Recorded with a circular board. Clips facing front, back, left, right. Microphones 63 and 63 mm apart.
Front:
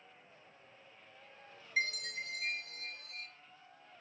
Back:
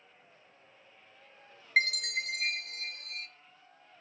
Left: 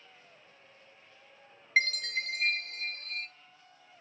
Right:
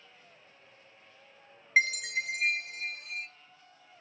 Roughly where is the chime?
Behind.